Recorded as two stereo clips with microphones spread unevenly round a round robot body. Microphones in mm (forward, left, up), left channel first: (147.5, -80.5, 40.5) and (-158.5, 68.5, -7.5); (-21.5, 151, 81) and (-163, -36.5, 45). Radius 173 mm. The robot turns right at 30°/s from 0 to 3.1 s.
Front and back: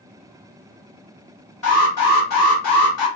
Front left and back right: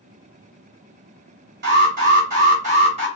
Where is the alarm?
120° right, 1.7 m; by 3.1 s 75° right, 1.7 m.